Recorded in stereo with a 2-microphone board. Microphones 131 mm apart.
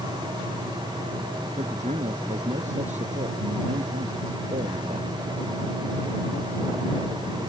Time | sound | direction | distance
1.6 | a man speaking | 60° right (ahead or behind) | ?